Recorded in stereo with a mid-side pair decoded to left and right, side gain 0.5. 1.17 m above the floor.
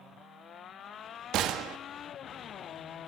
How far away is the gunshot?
About 1.5 m.